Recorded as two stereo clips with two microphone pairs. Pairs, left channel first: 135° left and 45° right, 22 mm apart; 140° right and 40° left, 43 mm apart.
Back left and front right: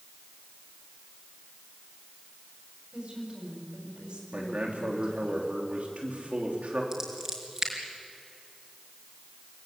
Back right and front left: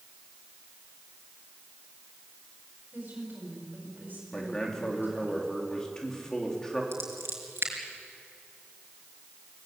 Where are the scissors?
15° left, 5 m.